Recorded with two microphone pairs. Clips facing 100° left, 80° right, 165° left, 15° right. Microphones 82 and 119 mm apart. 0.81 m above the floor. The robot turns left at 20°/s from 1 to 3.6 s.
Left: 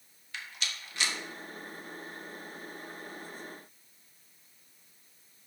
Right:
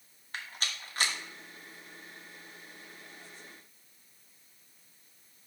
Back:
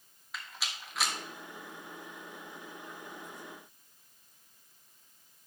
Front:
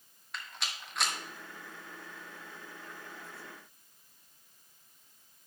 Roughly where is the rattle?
Right.